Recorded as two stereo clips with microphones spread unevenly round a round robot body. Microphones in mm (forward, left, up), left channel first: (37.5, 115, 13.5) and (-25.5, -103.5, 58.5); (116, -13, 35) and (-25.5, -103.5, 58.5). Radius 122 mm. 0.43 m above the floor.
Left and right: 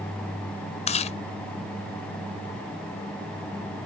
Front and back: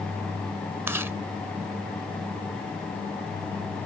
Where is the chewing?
130° left.